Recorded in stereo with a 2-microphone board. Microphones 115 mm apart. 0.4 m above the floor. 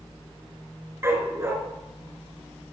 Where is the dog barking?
20° right (ahead or behind), 2.5 m.